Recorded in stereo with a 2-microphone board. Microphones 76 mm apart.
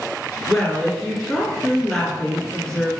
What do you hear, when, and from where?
0.5 s a woman speaking: 10° left (ahead or behind), 1.6 m